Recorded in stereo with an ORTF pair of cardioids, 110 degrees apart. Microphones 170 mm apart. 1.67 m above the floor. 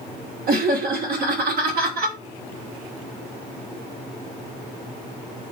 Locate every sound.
0.5 s laughter: 65° right, 0.6 m